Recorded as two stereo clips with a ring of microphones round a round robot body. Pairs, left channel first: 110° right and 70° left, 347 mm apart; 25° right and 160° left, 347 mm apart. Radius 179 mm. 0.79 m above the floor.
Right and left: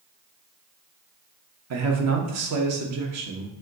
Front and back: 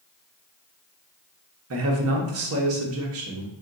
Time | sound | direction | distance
1.7 | a man speaking | 110° left | 0.9 m